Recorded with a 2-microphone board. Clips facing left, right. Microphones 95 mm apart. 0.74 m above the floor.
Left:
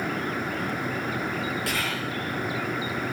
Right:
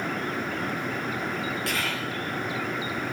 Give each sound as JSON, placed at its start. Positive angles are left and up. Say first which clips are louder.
{"t": 1.7, "sound": "whispering", "louder": "left 1 dB", "side_deg": 0, "distance_m": 0.6}